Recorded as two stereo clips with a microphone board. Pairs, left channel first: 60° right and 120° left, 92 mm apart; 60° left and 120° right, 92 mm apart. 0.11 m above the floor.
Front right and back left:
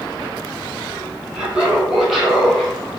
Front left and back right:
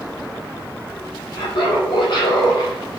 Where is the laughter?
40° left, 4.5 m; by 3.0 s 25° left, 4 m.